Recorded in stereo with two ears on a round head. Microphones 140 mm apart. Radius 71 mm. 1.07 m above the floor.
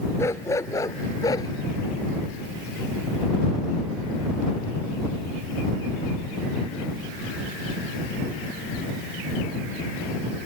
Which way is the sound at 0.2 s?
20° left (ahead or behind).